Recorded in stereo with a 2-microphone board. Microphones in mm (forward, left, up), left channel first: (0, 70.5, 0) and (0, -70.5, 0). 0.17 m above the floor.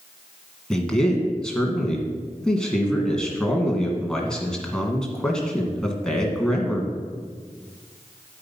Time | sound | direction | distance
0.7 | a man speaking | 5° left (ahead or behind) | 1.9 m